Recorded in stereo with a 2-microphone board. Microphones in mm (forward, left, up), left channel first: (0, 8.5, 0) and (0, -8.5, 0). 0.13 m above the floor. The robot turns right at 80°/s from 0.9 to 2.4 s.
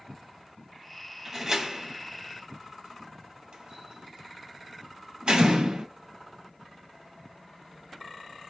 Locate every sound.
1.2 s a door slam: 5° right (ahead or behind), 2.0 m; by 5.9 s 65° right (ahead or behind), 2.0 m